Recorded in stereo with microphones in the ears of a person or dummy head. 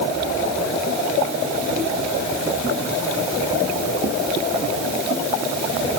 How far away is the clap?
I don't hear a clap.